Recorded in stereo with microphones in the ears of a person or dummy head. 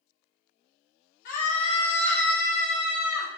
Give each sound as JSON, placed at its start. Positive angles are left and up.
{"t": 1.2, "sound": "a scream", "side_deg": 60, "distance_m": 0.7}